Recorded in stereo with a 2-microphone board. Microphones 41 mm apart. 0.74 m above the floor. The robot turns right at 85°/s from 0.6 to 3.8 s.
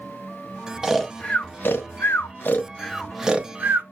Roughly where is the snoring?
Centre.